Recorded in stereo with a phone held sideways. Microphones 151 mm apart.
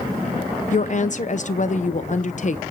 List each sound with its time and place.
0.7 s a woman speaking: 50° left (ahead or behind), 0.8 m